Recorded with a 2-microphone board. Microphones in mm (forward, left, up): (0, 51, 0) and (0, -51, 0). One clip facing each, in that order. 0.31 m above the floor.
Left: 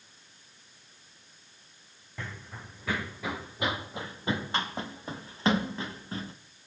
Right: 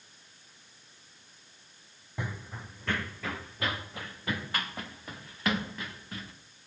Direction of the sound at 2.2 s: 15° right (ahead or behind).